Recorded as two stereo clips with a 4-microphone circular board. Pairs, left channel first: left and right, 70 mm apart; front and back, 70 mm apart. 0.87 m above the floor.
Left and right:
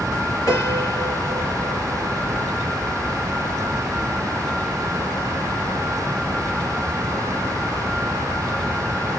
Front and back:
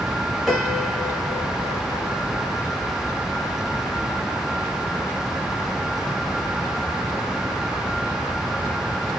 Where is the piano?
90° left, 1.4 m.